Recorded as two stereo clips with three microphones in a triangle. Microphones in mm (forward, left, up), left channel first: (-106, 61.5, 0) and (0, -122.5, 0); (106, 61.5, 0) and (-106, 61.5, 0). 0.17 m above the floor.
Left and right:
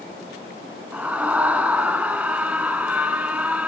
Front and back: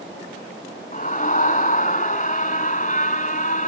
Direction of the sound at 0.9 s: 20° left.